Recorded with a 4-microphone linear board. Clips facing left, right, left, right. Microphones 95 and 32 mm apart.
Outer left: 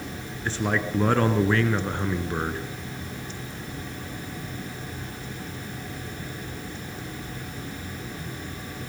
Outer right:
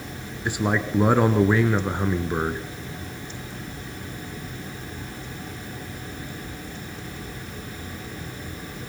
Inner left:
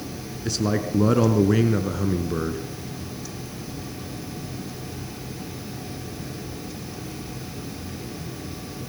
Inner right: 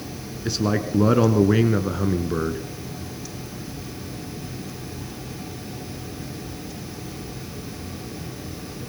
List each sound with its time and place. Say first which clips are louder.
0.5 s a man speaking: outer right 2 dB, inner right 1 dB; 15° right (ahead or behind), 1.2 m